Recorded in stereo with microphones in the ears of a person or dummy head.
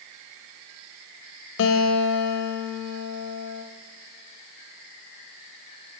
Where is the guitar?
70° left (ahead or behind), 0.7 m.